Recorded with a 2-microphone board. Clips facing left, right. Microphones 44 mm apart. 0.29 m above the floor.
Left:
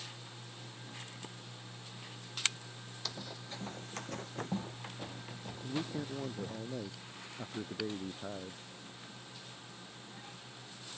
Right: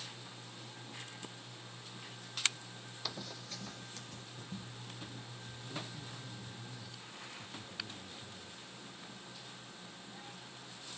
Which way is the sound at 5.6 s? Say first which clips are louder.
Left 8 dB; 85° left.